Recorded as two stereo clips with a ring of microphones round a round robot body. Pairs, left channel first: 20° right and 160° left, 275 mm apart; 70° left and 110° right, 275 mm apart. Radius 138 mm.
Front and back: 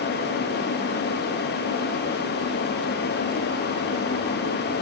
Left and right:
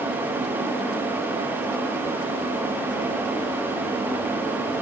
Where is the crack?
No crack in this recording.